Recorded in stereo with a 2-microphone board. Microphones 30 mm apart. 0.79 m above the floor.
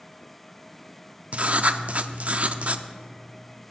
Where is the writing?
50° right (ahead or behind), 0.5 m.